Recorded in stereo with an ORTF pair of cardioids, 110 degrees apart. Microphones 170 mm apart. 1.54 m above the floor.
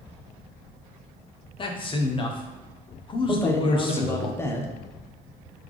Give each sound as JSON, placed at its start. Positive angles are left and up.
{"t": 1.6, "sound": "a man speaking", "azimuth_deg": 30, "distance_m": 0.8}
{"t": 3.3, "sound": "a man speaking", "azimuth_deg": 15, "distance_m": 0.7}